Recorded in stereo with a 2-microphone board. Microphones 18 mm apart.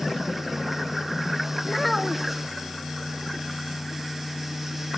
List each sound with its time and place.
1.6 s a child speaking: 5° left (ahead or behind), 1.5 m